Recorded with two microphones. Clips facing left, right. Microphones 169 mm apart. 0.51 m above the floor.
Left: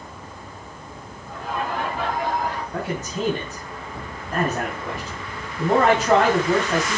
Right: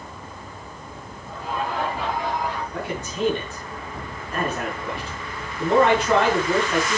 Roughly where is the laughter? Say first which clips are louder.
Even; left.